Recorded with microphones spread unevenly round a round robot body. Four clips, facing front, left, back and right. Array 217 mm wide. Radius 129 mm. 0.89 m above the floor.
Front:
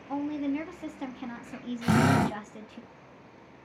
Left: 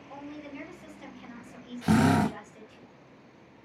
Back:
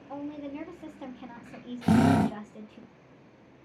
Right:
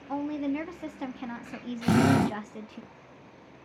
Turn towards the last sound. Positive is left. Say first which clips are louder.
# right 1 dB, back 2 dB
turn(degrees=-160)